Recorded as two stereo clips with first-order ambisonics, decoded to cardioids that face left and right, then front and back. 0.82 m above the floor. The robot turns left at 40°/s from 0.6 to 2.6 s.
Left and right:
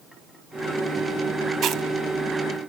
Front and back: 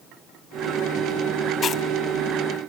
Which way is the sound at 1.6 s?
55° right.